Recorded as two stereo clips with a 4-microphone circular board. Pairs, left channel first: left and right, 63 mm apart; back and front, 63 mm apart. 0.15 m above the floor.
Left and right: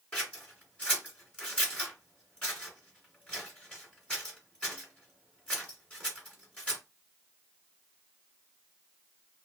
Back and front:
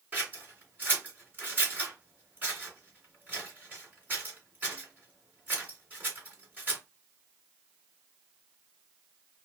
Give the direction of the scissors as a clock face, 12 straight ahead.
11 o'clock.